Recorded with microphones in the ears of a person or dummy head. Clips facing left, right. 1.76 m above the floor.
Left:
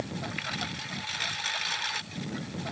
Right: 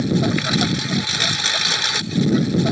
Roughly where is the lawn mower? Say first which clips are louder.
Right 17 dB; right.